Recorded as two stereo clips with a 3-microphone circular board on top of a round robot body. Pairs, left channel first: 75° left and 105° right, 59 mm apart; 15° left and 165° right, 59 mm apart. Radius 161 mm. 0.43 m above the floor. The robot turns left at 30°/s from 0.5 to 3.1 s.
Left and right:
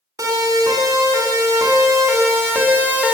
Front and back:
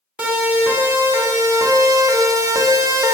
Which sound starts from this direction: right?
A siren, at 0.2 s.